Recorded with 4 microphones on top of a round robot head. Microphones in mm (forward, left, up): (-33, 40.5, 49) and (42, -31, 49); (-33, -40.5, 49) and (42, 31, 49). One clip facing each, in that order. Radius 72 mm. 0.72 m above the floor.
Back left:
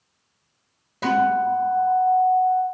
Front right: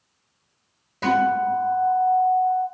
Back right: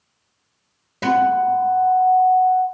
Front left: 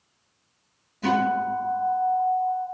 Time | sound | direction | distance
1.0 | a guitar | 140° right | 2 m